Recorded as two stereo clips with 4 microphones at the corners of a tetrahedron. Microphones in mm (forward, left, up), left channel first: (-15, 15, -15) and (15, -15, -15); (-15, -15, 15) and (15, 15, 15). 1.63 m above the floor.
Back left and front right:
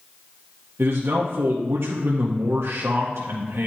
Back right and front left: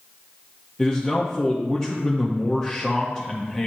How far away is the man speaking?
About 0.6 m.